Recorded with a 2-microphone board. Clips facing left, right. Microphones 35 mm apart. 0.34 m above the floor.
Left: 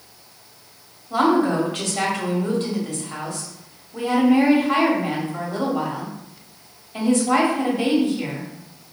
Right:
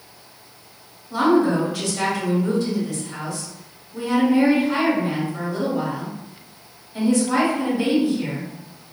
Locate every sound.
1.1 s a woman speaking: 50° left (ahead or behind), 1.4 m